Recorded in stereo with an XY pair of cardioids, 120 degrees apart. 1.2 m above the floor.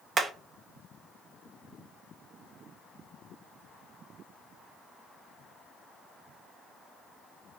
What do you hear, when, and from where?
0.2 s hammering: 35° right, 0.9 m